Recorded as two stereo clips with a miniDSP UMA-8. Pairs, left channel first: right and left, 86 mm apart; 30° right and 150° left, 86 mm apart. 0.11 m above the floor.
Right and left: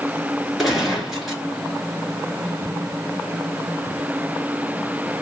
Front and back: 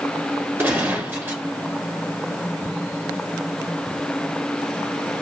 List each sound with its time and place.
0.6 s a gunshot: 175° left, 1.4 m